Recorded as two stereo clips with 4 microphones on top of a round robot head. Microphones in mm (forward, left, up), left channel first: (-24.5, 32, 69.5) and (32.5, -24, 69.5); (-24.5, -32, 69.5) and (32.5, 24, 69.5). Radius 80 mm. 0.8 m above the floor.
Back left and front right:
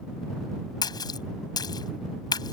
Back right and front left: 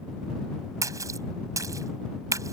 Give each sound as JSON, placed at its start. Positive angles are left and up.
{"t": 0.8, "sound": "a splash", "azimuth_deg": 95}